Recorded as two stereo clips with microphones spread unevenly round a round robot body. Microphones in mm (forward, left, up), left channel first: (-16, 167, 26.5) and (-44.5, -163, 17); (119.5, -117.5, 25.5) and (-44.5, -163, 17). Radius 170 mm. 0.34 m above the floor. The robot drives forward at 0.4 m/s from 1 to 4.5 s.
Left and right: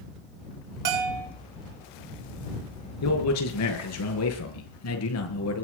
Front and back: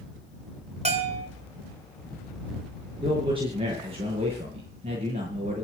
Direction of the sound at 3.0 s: 120° left.